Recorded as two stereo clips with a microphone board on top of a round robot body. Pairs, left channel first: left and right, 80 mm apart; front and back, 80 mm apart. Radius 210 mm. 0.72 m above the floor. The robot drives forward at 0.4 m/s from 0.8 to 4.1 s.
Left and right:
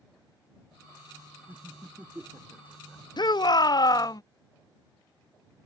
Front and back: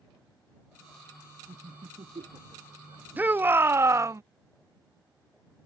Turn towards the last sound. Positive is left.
turn(degrees=130)